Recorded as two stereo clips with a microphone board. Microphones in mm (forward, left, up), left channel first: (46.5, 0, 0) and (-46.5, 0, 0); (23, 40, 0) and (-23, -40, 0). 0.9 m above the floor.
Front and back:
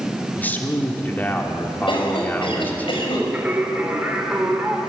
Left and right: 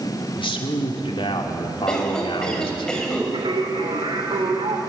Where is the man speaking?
70° left, 3 m.